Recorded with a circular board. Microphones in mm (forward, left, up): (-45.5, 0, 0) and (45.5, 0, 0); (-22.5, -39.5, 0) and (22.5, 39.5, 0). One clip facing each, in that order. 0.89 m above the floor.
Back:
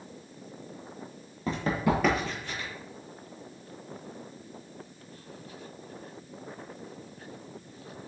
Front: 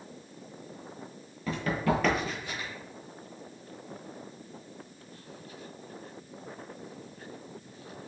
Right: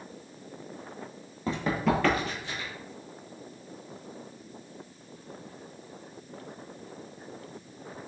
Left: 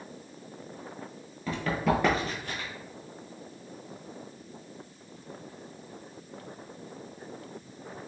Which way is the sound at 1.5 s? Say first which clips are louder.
Back 1 dB, right 1 dB; 150° right.